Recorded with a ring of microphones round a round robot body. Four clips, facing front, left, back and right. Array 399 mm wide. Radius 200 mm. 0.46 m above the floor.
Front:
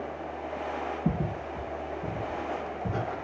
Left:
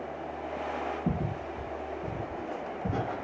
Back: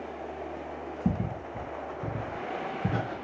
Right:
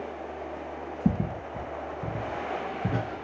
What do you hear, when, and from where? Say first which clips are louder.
1.1 s footsteps: right 4 dB, front 1 dB; 105° right, 2 m; by 3.2 s 145° right, 2.5 m